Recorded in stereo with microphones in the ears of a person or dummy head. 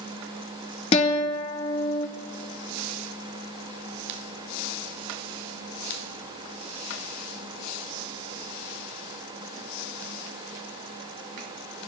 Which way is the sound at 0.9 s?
35° left (ahead or behind).